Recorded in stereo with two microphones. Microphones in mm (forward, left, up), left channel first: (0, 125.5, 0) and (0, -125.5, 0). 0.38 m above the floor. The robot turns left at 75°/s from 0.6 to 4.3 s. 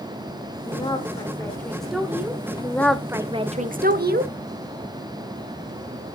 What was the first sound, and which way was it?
A woman speaking, 20° left (ahead or behind).